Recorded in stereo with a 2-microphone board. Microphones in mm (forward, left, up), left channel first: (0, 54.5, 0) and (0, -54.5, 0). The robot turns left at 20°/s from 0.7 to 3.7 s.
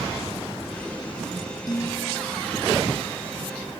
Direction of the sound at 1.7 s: 40° left (ahead or behind).